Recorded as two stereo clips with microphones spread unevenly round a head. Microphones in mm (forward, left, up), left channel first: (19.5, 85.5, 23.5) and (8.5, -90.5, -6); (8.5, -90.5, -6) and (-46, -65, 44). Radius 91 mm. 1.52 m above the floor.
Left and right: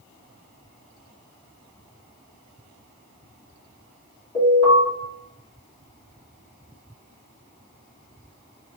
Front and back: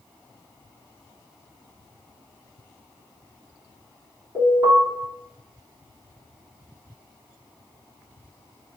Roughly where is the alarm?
Ahead left.